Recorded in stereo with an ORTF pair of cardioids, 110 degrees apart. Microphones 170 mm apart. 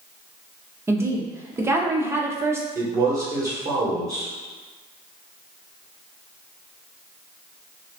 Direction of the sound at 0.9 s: 15° right.